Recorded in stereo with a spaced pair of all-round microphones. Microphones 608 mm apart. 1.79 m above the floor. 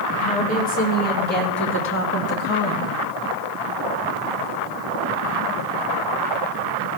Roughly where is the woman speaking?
Centre.